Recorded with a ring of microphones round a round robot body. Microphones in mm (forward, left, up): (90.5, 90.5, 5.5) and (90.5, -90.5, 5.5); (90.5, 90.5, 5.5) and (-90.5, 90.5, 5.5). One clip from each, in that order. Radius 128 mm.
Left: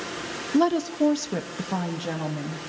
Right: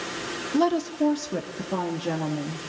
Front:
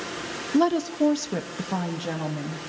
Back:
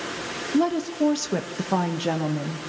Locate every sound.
0.5 s a woman speaking: 5° right, 0.6 m; by 2.7 s 135° left, 1.5 m